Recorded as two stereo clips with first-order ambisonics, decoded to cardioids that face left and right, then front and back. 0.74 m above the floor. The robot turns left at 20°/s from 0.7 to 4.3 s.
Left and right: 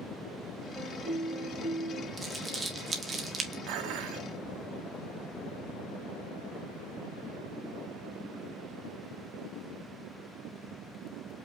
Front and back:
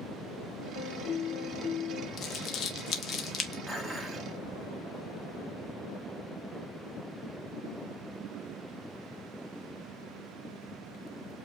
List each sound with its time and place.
0.8 s a piano: 5° right, 2 m; by 2.1 s 30° right, 2 m
2.2 s crumpling: 15° right, 0.9 m; by 3.6 s 45° right, 0.9 m
3.7 s dishes clattering: 90° right, 0.7 m; by 4.3 s 100° right, 0.7 m